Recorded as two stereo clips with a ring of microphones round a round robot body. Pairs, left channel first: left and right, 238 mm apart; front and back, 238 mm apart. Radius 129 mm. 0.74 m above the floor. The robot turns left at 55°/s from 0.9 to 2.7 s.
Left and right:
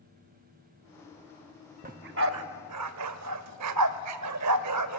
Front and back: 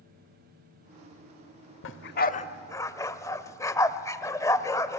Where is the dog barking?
30° right, 0.8 m; by 5.0 s 75° right, 0.8 m.